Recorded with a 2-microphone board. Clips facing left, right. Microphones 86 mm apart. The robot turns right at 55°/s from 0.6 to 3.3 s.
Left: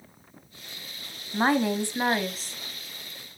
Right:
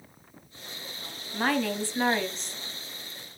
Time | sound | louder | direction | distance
1.3 | a woman speaking | left 4 dB | 115° left | 1.3 m